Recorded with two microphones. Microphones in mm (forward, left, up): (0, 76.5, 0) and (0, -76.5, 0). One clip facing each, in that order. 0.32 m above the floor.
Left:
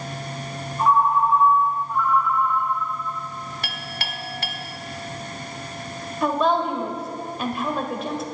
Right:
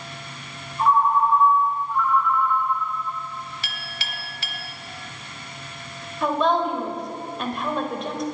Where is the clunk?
I don't hear a clunk.